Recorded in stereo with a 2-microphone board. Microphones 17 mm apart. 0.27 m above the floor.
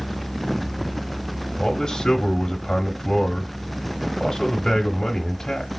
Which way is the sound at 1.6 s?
25° left (ahead or behind).